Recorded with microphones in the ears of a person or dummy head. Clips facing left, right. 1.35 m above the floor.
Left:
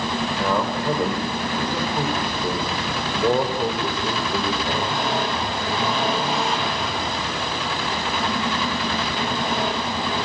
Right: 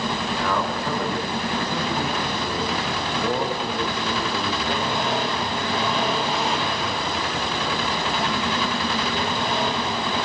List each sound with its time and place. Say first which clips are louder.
0.4 s a man speaking: left 3 dB; 25° left (ahead or behind), 5 m